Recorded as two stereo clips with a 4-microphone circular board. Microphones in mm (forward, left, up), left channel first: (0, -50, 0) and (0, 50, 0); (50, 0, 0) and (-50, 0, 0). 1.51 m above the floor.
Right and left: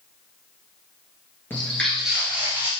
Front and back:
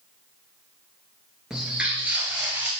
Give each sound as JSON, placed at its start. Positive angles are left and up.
{"t": 1.5, "sound": "footsteps", "azimuth_deg": -110, "distance_m": 1.5}